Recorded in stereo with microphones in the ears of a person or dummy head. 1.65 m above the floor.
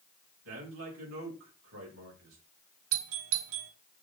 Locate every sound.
0.5 s a man speaking: 70° right (ahead or behind), 4.5 m
2.9 s a doorbell: 70° right (ahead or behind), 1.0 m